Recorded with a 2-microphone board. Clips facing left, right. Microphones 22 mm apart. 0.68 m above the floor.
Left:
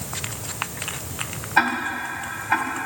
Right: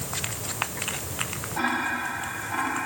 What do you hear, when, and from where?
1.6 s ticking: 65° left (ahead or behind), 2.5 m